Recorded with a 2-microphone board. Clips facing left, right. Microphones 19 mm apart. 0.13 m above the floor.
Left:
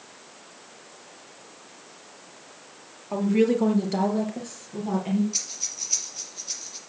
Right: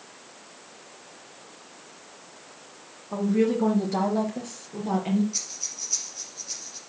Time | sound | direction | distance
3.1 | a woman speaking | 40° left (ahead or behind) | 3 m
5.3 | breathing | 20° left (ahead or behind) | 3.5 m